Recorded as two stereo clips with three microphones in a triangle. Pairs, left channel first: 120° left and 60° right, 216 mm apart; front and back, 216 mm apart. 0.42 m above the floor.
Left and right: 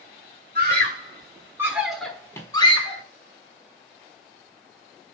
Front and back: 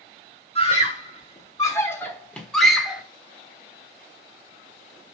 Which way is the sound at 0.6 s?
50° right.